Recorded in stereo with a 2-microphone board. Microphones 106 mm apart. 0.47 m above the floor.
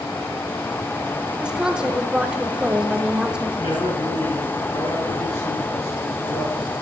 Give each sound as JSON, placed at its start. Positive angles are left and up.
{"t": 1.4, "sound": "a woman speaking", "side_deg": -10, "distance_m": 0.9}
{"t": 3.6, "sound": "a man speaking", "side_deg": 75, "distance_m": 6.0}